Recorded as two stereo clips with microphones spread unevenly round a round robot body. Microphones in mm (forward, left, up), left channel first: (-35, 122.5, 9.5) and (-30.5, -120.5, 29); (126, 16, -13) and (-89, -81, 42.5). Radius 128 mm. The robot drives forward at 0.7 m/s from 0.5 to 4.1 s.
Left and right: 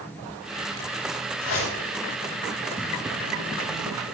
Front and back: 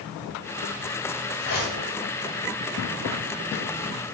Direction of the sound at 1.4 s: 70° left.